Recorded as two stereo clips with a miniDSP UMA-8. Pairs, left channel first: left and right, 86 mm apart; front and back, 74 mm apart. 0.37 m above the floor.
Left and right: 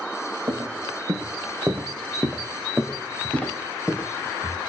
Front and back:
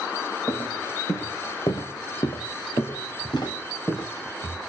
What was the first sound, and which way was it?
Footsteps, 45° right.